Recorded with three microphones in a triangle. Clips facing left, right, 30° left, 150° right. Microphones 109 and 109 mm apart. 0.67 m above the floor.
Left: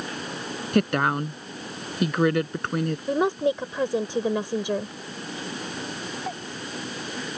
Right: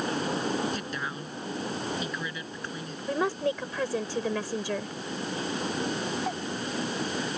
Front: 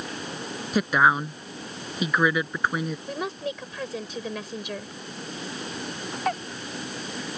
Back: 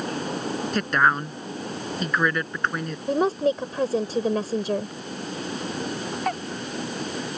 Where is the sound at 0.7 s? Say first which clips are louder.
Left 12 dB, front 2 dB; 110° left.